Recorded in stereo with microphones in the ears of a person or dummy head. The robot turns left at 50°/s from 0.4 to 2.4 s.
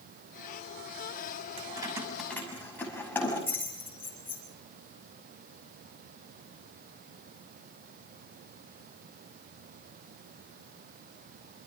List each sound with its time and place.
1.6 s keys jangling: 35° right (ahead or behind), 6 m; by 4.4 s 10° left (ahead or behind), 6 m